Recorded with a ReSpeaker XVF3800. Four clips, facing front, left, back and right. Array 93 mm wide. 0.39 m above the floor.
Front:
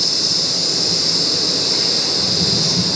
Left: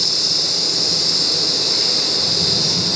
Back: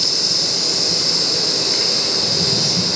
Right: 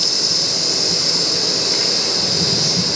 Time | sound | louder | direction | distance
0.0 | an insect | right 2 dB, even | 125° right | 1.7 m